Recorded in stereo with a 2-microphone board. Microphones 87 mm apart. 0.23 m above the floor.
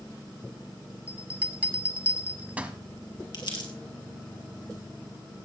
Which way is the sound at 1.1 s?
15° right (ahead or behind).